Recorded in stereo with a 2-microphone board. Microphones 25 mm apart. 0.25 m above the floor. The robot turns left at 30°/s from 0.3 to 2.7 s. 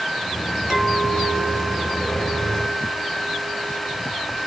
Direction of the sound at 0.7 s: 20° right.